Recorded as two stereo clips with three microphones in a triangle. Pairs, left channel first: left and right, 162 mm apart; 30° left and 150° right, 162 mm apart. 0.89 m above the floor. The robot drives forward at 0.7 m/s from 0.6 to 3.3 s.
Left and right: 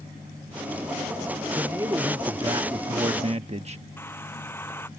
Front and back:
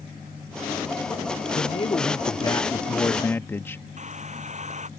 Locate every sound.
1.5 s a man speaking: 20° right; by 3.8 s 45° right
4.0 s a hair dryer: 165° left